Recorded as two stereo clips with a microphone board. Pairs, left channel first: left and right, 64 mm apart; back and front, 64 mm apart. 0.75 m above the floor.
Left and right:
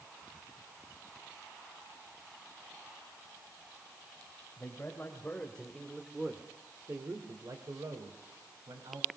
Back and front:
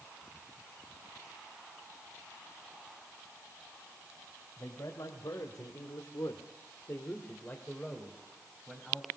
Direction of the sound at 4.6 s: 150° left.